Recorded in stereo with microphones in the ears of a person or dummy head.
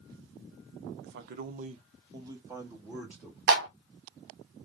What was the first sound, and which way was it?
A man speaking, 60° right (ahead or behind).